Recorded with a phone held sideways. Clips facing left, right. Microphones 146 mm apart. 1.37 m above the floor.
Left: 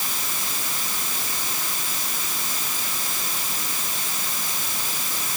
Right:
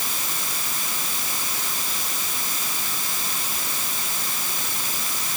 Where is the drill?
I don't hear a drill.